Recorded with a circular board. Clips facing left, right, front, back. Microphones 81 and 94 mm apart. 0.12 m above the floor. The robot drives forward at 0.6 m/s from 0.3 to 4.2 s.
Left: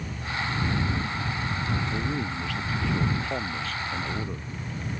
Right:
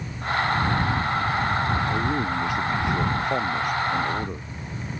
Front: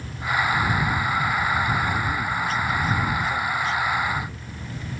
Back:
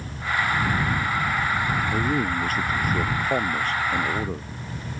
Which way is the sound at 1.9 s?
155° right.